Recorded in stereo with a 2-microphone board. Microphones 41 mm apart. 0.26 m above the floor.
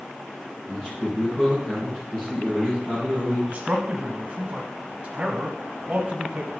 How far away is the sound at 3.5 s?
About 1.1 m.